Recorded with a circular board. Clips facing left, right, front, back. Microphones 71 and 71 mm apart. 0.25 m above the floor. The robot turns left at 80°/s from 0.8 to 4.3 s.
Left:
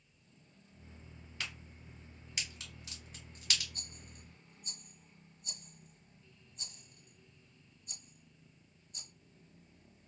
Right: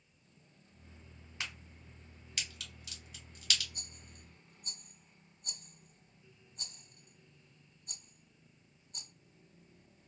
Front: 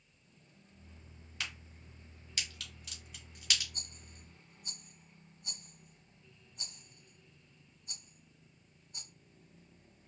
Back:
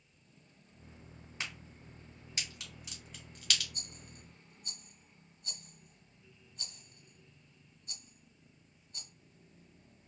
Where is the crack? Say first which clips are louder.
Right 1 dB, even; 140° right, 1.7 m; by 3.6 s 40° left, 1.7 m.